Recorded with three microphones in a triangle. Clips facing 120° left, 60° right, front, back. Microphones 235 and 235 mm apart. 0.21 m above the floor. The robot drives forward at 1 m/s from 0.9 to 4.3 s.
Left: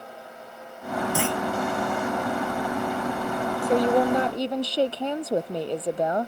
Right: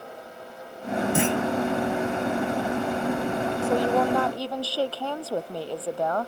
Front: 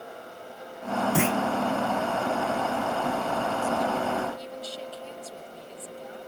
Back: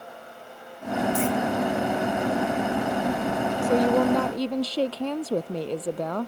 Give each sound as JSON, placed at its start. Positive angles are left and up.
{"t": 1.1, "sound": "a clunk", "azimuth_deg": 10}
{"t": 3.6, "sound": "a woman speaking", "azimuth_deg": -170}